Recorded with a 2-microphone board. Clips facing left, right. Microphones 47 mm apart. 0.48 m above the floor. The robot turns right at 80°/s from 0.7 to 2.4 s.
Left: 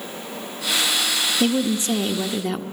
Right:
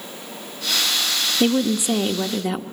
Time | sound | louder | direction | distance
1.4 | a woman speaking | right 3 dB | 20° right (ahead or behind) | 0.7 m